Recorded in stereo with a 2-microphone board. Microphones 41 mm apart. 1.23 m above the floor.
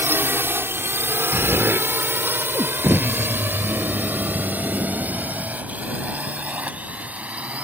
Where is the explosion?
65° right (ahead or behind).